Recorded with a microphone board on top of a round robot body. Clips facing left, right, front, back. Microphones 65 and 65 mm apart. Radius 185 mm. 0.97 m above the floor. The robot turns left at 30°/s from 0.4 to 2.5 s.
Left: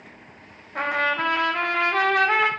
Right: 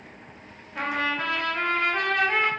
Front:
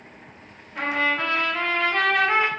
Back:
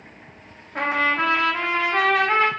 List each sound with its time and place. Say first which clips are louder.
0.8 s a trumpet: left 4 dB, back 2 dB; 135° left, 0.7 m; by 2.5 s 85° left, 0.7 m